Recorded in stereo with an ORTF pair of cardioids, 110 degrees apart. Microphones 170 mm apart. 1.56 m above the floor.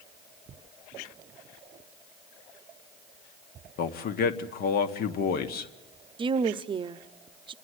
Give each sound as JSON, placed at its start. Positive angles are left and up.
{"t": 3.8, "sound": "a man speaking", "azimuth_deg": 65, "distance_m": 1.5}
{"t": 6.2, "sound": "a woman speaking", "azimuth_deg": -30, "distance_m": 0.7}